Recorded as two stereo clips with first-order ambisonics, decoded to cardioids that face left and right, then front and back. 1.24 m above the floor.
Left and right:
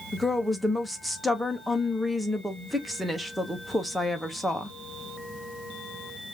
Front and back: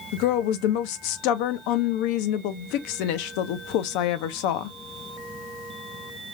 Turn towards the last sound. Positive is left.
turn(degrees=0)